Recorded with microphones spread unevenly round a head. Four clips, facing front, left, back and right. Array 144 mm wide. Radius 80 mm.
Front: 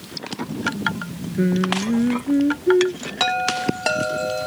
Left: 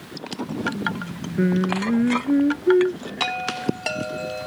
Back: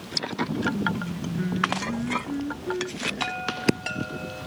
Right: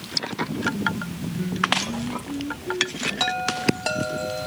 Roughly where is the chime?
Ahead.